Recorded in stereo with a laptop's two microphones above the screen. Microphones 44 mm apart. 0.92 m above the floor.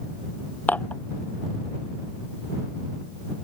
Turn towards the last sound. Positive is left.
turn(degrees=40)  # may be behind; listen again after turning